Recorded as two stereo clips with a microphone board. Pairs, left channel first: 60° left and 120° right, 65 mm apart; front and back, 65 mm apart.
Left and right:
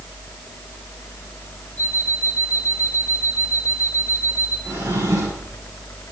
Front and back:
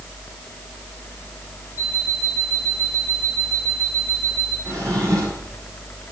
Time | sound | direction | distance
1.8 | an alarm clock | 120° right | 7 m
4.7 | a drawer | 155° right | 8.5 m